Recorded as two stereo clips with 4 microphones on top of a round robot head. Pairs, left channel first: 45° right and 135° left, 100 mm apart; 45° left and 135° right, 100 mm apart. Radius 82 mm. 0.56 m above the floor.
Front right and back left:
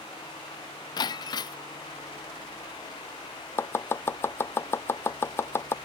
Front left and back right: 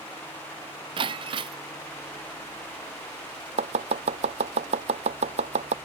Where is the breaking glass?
95° right.